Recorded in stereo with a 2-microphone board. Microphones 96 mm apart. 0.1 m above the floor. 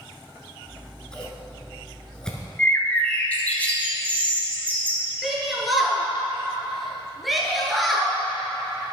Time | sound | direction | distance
0.7 | scissors | 10° left (ahead or behind) | 1.0 m
2.6 | a bird | 15° left (ahead or behind) | 1.2 m
5.2 | a shout | centre (ahead or behind) | 1.5 m